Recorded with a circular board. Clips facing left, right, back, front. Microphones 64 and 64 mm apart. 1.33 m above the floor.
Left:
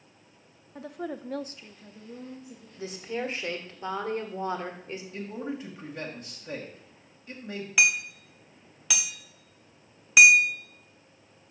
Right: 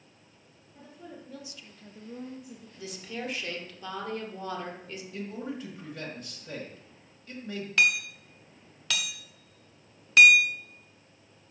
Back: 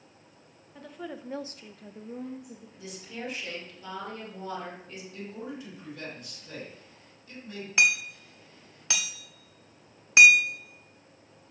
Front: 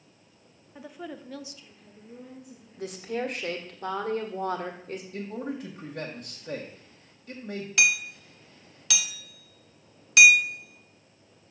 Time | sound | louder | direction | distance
0.8 | a woman speaking | left 10 dB, even | 75° left | 0.9 m
2.8 | a woman speaking | left 5 dB, front 9 dB | 35° left | 1.5 m
5.1 | a man speaking | left 1 dB, front 4 dB | 15° left | 1.4 m
7.8 | hammering | even, back 1 dB | 155° left | 0.9 m